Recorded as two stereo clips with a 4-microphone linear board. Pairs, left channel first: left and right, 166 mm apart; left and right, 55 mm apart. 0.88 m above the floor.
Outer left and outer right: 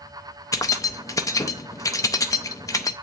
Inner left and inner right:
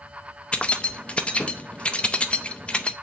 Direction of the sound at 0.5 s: 20° left (ahead or behind).